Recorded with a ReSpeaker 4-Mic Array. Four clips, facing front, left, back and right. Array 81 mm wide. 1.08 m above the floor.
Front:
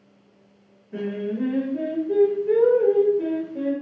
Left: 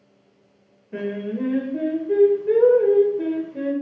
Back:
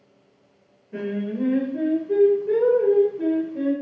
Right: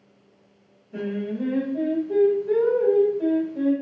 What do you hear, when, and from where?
0.9 s singing: 90° left, 1.0 m